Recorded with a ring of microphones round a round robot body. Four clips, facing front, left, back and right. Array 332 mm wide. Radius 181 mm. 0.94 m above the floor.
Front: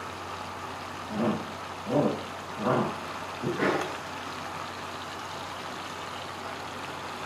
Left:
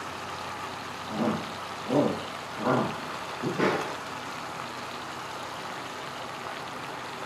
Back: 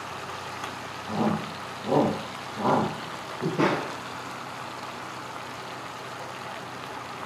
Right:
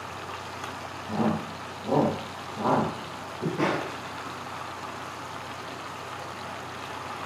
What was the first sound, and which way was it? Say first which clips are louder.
A shout: right 2 dB, back 2 dB; 145° right.